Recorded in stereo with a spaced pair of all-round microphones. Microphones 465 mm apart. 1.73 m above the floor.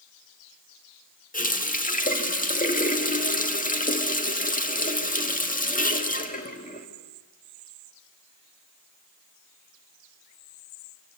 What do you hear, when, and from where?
1.3 s a running tap: 15° left (ahead or behind), 1.7 m